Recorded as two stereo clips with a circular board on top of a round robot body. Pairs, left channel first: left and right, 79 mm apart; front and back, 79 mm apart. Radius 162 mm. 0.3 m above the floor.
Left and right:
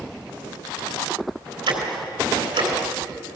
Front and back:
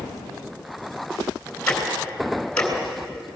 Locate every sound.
1.7 s ticking: 80° right, 3.5 m